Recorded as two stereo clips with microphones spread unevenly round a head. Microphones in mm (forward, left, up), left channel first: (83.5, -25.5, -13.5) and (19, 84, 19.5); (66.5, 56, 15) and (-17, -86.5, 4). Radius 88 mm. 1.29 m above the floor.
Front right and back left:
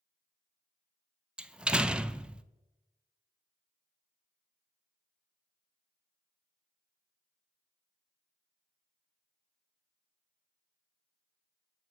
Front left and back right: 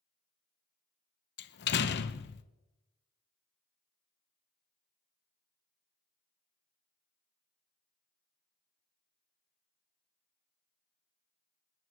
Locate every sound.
1.4 s a door slam: 40° left, 0.9 m